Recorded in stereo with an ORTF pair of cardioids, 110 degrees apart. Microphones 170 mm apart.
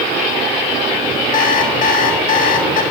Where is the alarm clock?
55° left, 2.5 m.